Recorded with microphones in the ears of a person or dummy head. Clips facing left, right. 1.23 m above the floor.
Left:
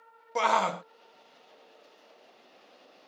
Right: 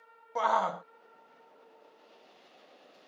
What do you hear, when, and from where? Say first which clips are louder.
0.3 s a shout: left 2 dB; 35° left (ahead or behind)